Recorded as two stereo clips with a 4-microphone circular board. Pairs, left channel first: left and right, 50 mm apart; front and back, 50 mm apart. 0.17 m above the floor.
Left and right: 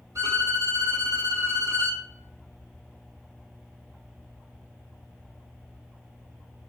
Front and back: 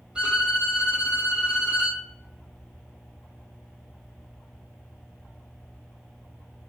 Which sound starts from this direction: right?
A violin, at 0.1 s.